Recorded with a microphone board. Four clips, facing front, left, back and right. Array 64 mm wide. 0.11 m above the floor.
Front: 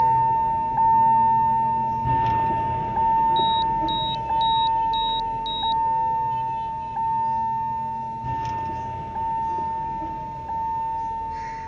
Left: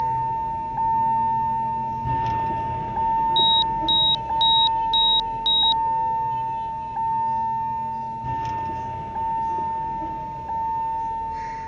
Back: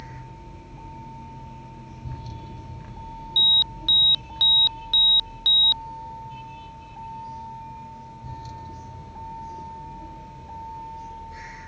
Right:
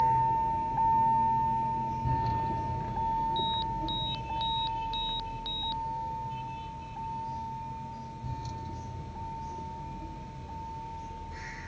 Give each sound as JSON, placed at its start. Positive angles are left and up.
{"t": 0.0, "sound": "a vehicle", "azimuth_deg": 5}
{"t": 3.4, "sound": "an alarm", "azimuth_deg": 160}